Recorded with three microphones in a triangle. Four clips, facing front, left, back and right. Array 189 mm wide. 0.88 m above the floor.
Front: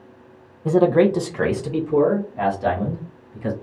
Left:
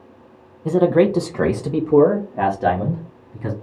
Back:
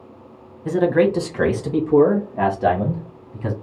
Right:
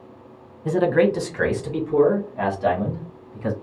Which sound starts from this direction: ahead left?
A man speaking, at 0.7 s.